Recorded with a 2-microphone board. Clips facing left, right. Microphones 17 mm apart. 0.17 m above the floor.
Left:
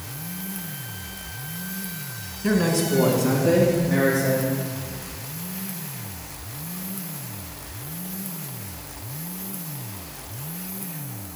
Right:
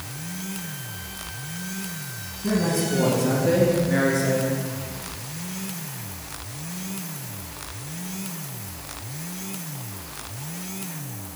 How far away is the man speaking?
About 1.7 m.